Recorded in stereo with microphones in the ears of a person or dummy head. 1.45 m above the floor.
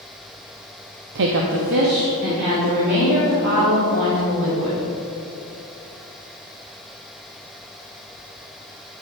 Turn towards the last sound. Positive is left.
turn(degrees=-55)  # may be behind; listen again after turning